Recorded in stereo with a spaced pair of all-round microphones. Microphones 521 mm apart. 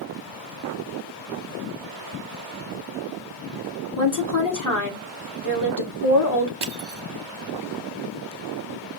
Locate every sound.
4.0 s a woman speaking: 35° left (ahead or behind), 1.5 m
6.6 s crushing: 50° right (ahead or behind), 0.6 m